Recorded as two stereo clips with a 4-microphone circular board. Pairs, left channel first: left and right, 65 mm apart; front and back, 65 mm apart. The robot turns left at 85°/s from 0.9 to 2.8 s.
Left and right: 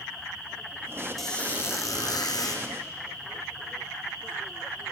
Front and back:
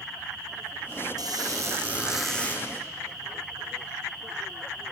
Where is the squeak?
Straight behind, 3.5 m; by 2.6 s 55° left, 3.5 m.